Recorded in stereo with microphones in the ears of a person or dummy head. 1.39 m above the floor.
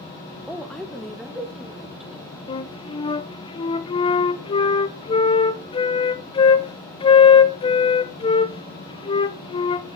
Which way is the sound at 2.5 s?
25° left (ahead or behind).